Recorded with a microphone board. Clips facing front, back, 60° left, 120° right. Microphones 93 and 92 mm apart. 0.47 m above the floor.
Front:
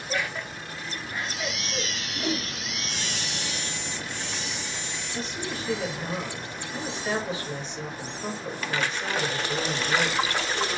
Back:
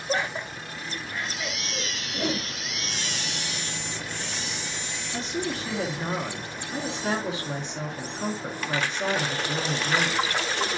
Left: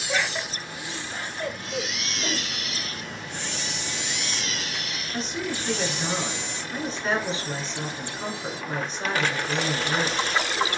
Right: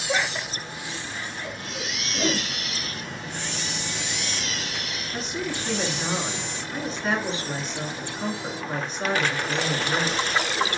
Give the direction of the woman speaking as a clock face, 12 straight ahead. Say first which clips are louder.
Back 4 dB, even; 7 o'clock.